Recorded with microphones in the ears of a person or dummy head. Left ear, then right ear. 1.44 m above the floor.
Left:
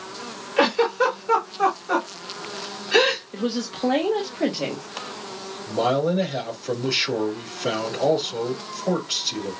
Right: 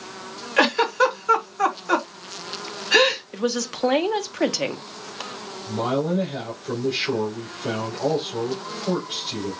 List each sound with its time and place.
0.6 s a giggle: 35° right (ahead or behind), 1.7 m
3.3 s a woman speaking: 50° right (ahead or behind), 1.0 m
5.7 s a man speaking: 75° left (ahead or behind), 3 m